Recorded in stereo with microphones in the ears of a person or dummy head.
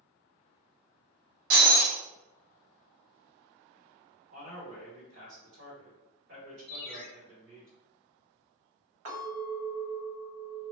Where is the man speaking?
55° right (ahead or behind), 1.5 m.